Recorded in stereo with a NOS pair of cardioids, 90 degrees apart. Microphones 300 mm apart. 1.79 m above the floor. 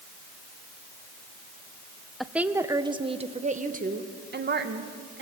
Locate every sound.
2.2 s a woman speaking: straight ahead, 1.3 m; by 5.2 s 40° right, 2.5 m